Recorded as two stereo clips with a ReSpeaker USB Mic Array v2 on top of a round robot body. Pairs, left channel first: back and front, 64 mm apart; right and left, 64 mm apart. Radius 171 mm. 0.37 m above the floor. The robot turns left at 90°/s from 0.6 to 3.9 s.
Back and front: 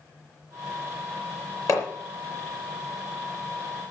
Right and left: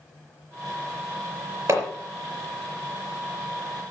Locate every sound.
1.7 s hammering: 140° left, 4.5 m; by 1.9 s 125° left, 4.5 m